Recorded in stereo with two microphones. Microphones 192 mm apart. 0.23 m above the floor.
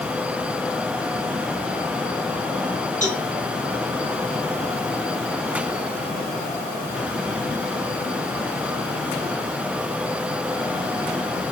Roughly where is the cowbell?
Left.